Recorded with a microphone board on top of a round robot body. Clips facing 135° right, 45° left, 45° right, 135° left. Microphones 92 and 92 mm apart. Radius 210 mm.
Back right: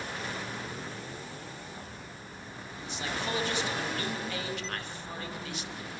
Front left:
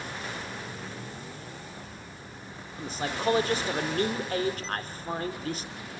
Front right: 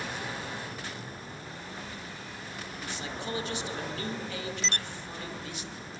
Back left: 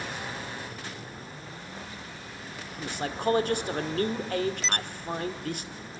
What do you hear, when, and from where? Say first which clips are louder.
2.8 s a man speaking: front left 5 dB, back left 8 dB; 95° left, 2.5 m